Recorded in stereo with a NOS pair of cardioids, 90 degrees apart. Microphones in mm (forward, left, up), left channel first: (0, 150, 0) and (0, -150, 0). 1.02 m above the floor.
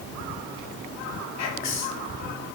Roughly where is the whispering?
Ahead left.